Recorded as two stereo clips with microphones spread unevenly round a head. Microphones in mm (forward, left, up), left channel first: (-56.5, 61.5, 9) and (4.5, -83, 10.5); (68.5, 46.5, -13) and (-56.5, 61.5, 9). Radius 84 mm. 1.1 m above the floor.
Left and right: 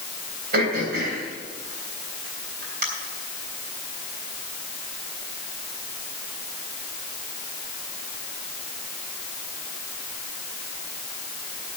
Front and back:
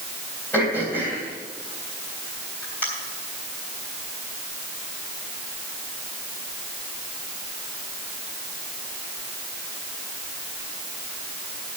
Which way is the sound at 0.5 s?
90° right.